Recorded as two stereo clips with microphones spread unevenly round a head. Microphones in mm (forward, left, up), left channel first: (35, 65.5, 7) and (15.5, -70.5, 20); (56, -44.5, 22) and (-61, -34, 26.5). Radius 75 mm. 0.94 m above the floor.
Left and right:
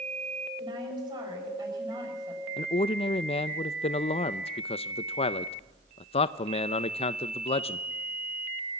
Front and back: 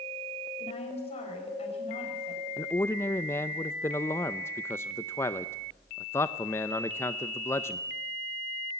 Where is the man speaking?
60° left, 0.5 m.